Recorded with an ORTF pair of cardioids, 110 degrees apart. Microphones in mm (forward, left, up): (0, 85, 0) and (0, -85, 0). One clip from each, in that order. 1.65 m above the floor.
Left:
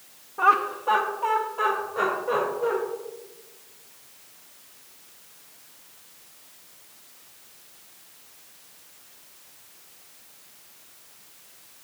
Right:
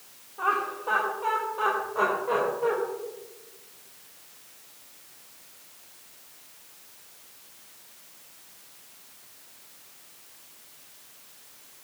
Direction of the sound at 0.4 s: 35° left.